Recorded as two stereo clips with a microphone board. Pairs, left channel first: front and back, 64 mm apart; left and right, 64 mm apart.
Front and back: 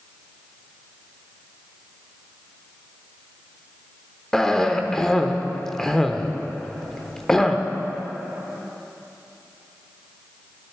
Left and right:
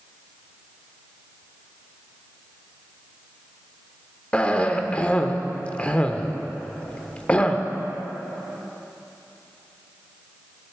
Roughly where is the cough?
Left.